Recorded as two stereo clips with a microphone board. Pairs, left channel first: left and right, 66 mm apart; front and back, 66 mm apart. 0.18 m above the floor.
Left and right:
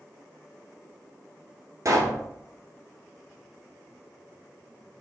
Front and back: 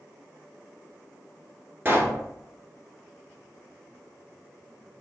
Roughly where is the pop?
Behind right.